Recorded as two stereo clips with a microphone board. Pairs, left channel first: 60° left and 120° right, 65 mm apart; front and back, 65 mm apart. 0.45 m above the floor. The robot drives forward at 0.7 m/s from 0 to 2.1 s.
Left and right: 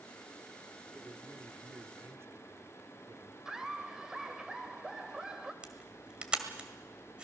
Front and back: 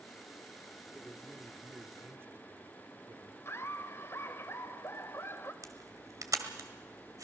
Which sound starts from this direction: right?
A man speaking, at 0.9 s.